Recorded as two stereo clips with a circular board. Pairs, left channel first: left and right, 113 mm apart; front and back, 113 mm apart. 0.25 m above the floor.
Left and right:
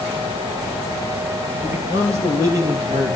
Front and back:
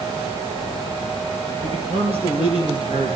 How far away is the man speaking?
About 4.5 m.